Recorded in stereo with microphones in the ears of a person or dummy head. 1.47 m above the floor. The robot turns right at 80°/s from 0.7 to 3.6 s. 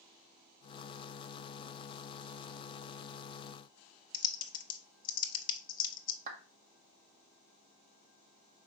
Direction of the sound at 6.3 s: 50° right (ahead or behind).